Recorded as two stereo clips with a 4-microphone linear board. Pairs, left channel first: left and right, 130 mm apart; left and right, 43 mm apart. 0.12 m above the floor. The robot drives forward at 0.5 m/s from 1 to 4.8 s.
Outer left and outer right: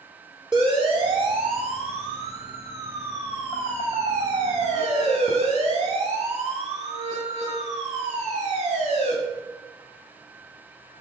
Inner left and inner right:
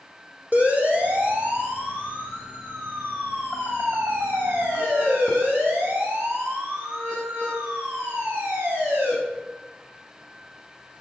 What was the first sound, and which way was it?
A siren, 40° right (ahead or behind).